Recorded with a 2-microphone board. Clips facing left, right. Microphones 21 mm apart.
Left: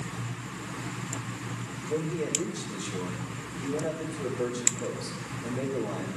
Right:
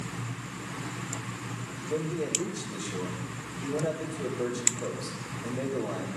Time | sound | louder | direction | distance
1.9 | a man speaking | even | 10° left (ahead or behind) | 2.5 m